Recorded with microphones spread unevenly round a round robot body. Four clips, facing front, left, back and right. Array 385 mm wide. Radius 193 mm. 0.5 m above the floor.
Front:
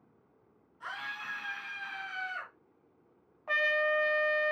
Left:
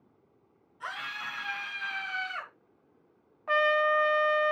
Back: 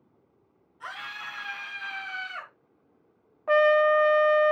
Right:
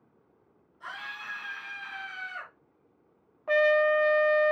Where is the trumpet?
170° right, 0.6 m.